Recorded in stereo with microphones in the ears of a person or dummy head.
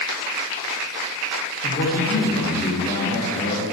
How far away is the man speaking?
About 3 m.